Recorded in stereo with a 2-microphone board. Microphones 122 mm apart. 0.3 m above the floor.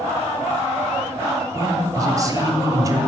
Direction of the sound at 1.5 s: 30° right (ahead or behind).